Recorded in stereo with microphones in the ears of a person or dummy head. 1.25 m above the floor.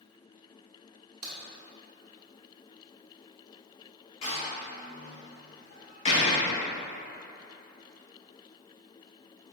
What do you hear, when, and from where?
1.2 s a crack: 40° right (ahead or behind), 1.5 m
4.2 s a door slam: 40° left (ahead or behind), 1.0 m